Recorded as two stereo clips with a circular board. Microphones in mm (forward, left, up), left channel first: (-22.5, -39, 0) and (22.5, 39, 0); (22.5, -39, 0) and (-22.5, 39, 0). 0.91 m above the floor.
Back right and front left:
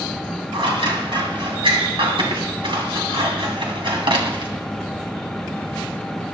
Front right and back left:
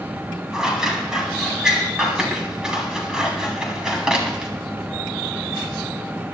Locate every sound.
0.5 s scissors: 40° left, 3 m